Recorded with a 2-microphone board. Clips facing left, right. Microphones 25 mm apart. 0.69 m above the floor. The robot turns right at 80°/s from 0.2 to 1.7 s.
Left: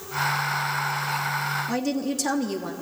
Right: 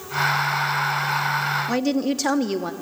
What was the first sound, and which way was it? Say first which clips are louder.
A woman speaking: right 4 dB; 30° right (ahead or behind).